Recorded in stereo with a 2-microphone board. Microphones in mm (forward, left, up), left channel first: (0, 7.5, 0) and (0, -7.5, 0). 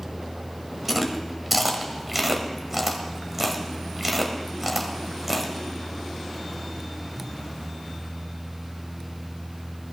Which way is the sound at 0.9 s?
15° right (ahead or behind).